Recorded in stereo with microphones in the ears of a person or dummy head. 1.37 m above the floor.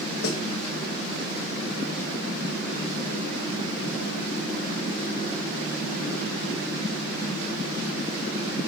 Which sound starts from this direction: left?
A snare drum, at 0.2 s.